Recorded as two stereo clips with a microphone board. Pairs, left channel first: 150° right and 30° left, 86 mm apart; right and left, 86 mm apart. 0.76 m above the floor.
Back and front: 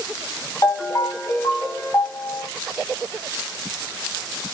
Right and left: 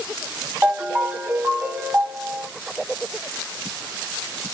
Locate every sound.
0.6 s a ringtone: 155° left, 1.5 m